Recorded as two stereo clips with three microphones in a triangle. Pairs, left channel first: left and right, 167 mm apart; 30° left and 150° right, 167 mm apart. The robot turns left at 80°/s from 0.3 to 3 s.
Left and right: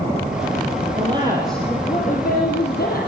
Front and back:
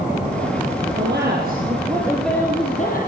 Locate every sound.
0.9 s a woman speaking: 135° right, 8 m; by 3.1 s 60° left, 8 m